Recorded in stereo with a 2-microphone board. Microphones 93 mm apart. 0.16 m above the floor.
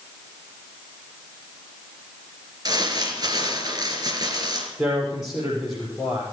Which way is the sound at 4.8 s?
5° right (ahead or behind).